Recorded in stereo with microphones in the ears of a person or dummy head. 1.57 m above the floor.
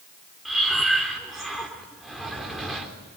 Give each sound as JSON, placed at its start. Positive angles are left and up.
{"t": 0.5, "sound": "breathing", "side_deg": 0, "distance_m": 3.5}